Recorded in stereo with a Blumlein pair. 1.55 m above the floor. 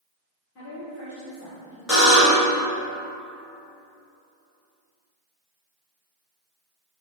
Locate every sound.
0.6 s a woman speaking: 40° left, 1.2 m
1.9 s a buzzer: 20° left, 1.8 m